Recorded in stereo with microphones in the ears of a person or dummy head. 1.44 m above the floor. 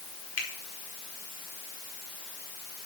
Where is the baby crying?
I don't hear a baby crying.